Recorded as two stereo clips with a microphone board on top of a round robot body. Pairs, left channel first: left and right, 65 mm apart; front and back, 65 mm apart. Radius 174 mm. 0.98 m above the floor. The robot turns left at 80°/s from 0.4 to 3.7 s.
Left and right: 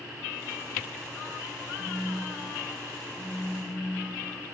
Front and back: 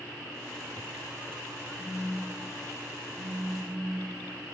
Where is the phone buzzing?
65° right, 4 m; by 4.3 s 145° left, 4 m.